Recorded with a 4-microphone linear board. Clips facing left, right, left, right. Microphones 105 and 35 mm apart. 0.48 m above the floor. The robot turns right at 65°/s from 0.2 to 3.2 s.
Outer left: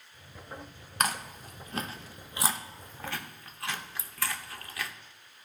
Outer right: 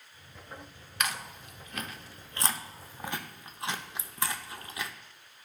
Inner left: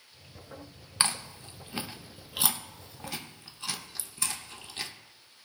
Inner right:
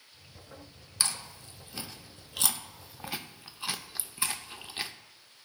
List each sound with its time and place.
1.0 s chewing: 40° left (ahead or behind), 0.6 m; by 4.9 s 25° right (ahead or behind), 0.6 m